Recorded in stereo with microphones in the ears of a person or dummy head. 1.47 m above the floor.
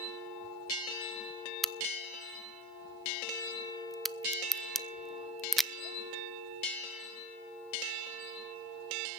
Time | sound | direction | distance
1.6 | a crack | centre (ahead or behind) | 0.6 m